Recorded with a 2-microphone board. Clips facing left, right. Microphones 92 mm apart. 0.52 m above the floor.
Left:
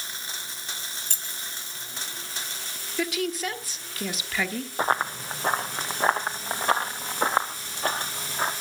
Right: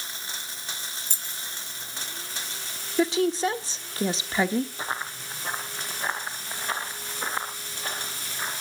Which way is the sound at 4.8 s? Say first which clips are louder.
Left 8 dB; 60° left (ahead or behind).